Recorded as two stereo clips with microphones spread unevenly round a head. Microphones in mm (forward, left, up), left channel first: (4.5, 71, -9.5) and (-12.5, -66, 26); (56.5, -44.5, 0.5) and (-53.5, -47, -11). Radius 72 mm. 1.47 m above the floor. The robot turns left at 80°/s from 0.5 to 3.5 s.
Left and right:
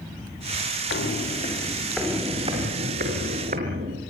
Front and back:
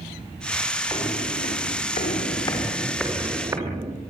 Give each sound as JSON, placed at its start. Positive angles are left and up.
{"t": 0.9, "sound": "footsteps", "azimuth_deg": 70, "distance_m": 6.0}